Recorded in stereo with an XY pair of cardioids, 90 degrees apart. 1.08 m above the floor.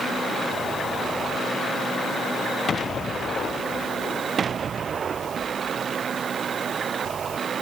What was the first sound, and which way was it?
Only background noise.